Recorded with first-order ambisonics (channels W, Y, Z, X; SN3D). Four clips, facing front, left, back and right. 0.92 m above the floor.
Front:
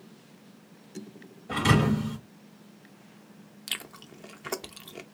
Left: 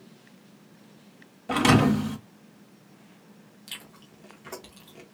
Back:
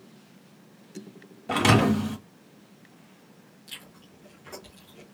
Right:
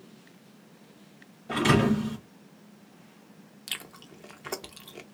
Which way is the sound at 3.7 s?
30° right.